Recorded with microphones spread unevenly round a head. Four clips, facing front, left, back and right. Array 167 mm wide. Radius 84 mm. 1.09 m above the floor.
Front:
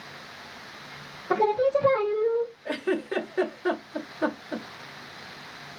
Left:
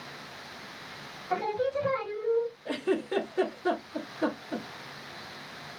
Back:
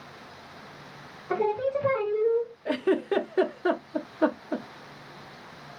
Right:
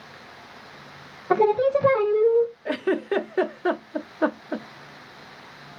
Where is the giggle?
120° right, 0.6 m.